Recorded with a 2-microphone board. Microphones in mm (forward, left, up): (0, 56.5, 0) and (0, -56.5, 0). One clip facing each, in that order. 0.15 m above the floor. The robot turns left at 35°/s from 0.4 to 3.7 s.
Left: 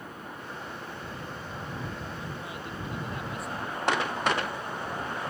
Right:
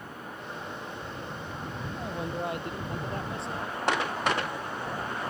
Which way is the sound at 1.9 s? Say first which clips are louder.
Right 5 dB; 100° right.